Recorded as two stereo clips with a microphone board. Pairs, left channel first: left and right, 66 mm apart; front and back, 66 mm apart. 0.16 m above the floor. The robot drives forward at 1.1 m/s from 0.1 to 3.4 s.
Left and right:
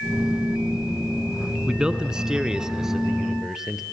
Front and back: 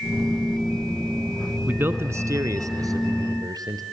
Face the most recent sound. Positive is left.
turn(degrees=-175)